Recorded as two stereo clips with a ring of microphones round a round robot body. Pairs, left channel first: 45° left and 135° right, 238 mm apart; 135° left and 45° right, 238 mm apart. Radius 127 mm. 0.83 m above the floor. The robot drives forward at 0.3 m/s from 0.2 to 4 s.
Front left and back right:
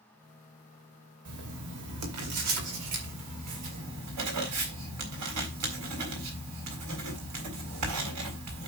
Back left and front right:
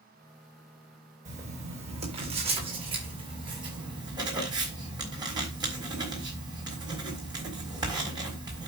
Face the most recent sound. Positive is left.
turn(degrees=-120)